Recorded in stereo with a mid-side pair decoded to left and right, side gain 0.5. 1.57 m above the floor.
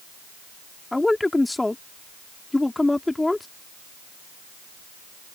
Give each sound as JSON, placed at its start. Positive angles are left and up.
{"t": 0.9, "sound": "a man speaking", "azimuth_deg": 15}